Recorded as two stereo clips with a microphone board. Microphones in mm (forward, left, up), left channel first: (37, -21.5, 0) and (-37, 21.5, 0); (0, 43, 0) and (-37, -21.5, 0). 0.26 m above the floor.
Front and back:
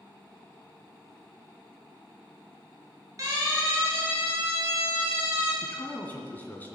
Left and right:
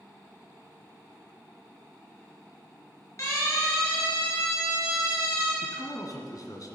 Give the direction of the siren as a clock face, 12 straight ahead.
9 o'clock.